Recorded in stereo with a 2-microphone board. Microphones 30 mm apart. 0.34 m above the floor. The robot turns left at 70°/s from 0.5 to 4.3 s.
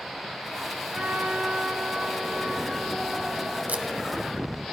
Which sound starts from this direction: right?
Tape being pulled, at 3.7 s.